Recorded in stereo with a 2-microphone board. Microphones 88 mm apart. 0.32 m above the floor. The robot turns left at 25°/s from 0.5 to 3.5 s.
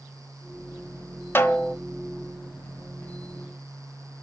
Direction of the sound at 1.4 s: 25° left (ahead or behind).